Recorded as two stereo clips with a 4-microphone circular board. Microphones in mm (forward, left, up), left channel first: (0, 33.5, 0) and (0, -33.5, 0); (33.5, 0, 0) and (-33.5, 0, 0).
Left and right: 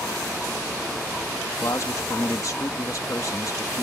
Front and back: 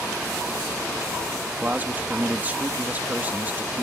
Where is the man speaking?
120° left.